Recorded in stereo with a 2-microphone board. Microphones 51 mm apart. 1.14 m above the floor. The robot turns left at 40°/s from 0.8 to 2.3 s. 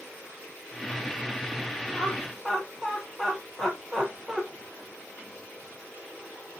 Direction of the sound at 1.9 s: 20° left (ahead or behind).